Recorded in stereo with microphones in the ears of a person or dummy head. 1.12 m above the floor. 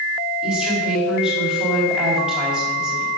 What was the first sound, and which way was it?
A woman speaking, 5° right (ahead or behind).